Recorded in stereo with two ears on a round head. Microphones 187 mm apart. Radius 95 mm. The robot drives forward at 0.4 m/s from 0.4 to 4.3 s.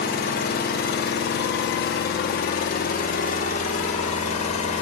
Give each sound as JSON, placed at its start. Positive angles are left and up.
{"t": 0.0, "sound": "an engine running", "side_deg": 45, "distance_m": 1.3}